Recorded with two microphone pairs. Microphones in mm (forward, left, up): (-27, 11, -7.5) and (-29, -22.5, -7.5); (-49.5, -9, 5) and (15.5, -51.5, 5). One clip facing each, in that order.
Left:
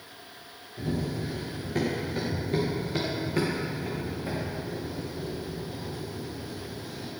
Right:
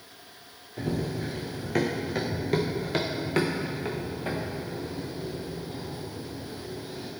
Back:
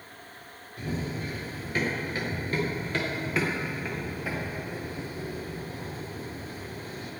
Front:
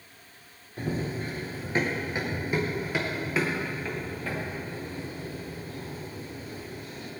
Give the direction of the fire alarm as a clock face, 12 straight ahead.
No fire alarm in this recording.